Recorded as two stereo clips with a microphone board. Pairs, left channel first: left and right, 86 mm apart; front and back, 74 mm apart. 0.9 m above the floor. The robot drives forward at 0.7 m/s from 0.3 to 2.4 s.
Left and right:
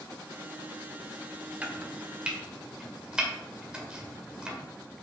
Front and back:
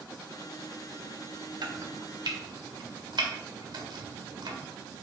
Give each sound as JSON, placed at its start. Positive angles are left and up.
{"t": 1.6, "sound": "chopping", "azimuth_deg": -165, "distance_m": 1.2}